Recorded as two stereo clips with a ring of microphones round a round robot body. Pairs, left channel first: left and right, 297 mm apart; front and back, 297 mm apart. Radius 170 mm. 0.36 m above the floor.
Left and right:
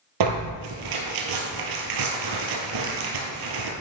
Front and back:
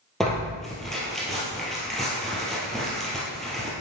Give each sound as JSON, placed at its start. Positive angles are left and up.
{"t": 0.2, "sound": "tearing paper", "azimuth_deg": -90, "distance_m": 3.0}